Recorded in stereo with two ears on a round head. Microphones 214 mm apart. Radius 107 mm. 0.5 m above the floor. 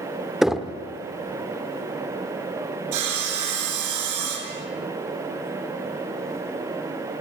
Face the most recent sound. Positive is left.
turn(degrees=-85)